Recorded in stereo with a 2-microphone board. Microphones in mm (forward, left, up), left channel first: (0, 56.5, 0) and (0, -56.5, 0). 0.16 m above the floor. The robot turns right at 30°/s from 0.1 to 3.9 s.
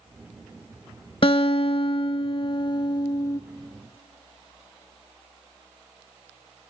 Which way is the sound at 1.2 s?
80° left.